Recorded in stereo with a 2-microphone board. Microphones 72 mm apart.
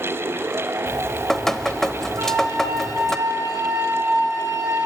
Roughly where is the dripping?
Centre.